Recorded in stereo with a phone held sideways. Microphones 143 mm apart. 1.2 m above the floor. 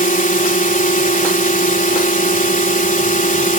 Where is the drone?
65° left (ahead or behind).